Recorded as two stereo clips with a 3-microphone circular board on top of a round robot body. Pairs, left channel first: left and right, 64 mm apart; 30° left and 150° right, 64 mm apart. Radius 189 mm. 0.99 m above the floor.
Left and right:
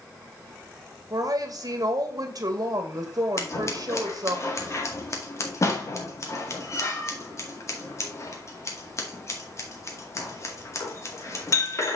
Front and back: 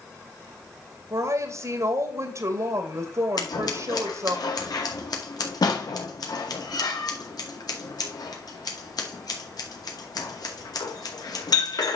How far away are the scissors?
About 2 m.